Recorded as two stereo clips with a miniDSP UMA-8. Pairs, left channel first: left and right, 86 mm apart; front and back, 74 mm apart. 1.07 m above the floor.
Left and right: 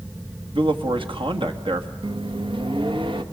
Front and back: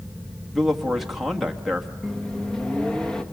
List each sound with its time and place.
0.6 s a man speaking: 95° right, 1.8 m
2.0 s a microwave: 80° right, 1.3 m